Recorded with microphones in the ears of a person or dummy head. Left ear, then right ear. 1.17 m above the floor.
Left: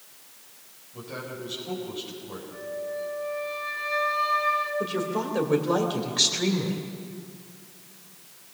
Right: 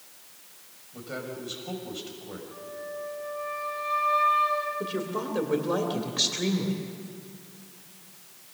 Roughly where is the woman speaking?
Centre.